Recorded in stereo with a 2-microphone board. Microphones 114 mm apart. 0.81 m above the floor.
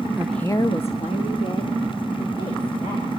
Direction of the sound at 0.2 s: 15° right (ahead or behind).